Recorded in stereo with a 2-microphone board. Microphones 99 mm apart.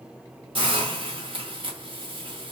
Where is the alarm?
No alarm in this recording.